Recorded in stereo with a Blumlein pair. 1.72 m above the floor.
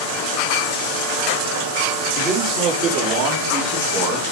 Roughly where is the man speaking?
Ahead right.